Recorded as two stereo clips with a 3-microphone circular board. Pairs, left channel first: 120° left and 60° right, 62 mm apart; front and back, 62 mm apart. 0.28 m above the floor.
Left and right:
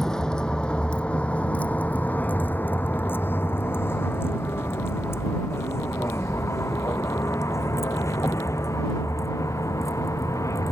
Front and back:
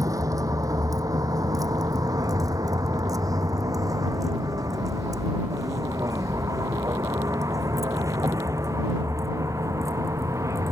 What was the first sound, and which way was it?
A vehicle, 160° right.